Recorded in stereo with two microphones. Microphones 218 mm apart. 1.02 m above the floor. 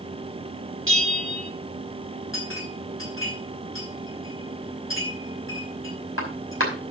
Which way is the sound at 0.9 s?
65° right (ahead or behind).